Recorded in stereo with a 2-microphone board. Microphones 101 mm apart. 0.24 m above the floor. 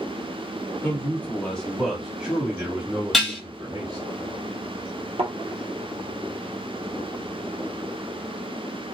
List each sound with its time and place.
0.8 s a man speaking: 25° left (ahead or behind), 1.6 m; by 4.0 s 45° right (ahead or behind), 1.9 m
3.1 s dishes clattering: centre (ahead or behind), 1.1 m
5.2 s a thud: 70° right (ahead or behind), 1.1 m